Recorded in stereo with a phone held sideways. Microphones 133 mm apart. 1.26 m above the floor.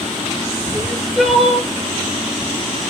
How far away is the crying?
About 0.9 m.